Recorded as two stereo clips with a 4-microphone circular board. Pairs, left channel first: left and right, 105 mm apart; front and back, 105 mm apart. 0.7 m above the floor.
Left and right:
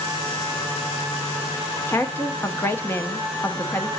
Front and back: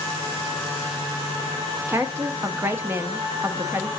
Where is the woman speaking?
135° left, 0.7 m.